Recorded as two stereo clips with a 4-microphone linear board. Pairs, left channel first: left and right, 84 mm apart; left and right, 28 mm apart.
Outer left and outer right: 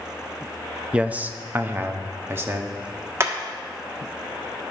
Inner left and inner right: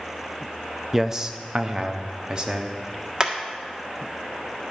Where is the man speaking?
15° right (ahead or behind), 0.6 m; by 2.8 s 30° right (ahead or behind), 1.4 m.